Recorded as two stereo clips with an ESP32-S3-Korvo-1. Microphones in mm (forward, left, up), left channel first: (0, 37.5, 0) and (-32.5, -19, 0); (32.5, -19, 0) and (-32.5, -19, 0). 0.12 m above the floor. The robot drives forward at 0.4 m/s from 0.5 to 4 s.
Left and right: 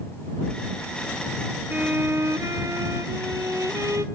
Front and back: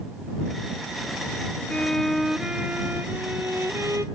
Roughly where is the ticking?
I don't hear ticking.